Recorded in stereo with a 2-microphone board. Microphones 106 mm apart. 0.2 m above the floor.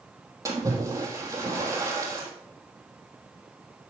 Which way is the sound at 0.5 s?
30° right (ahead or behind).